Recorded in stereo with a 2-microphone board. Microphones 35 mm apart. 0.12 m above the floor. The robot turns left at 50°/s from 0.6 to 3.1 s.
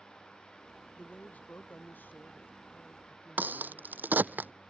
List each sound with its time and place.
1.0 s a man speaking: 140° left; by 4.4 s 35° left
3.4 s a crack: 75° right (ahead or behind)